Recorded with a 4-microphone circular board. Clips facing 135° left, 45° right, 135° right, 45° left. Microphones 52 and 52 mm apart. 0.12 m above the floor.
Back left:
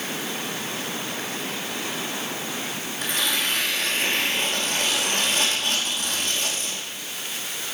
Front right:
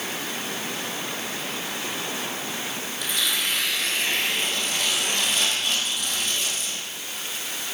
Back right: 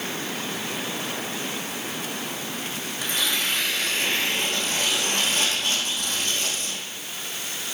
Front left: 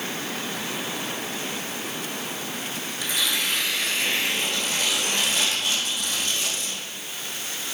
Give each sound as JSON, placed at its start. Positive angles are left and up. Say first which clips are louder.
{"t": 3.0, "sound": "tearing paper", "louder": "back left 1 dB, even", "azimuth_deg": 180, "distance_m": 3.0}